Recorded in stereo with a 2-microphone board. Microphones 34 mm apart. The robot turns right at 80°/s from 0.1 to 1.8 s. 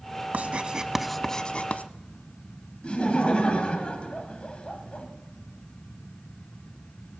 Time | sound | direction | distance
0.3 | writing | 50° right (ahead or behind) | 0.6 m
2.8 | laughter | 35° left (ahead or behind) | 1.5 m